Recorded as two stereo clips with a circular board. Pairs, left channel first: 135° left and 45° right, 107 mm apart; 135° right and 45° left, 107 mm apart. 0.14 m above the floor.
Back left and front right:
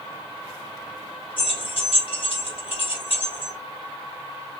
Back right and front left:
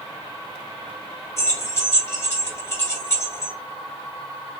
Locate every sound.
1.4 s keys jangling: 165° left, 2 m